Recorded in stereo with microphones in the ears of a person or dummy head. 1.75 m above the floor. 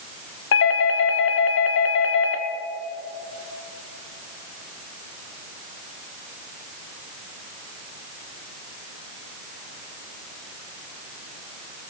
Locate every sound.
0.5 s a doorbell: 75° left (ahead or behind), 1.2 m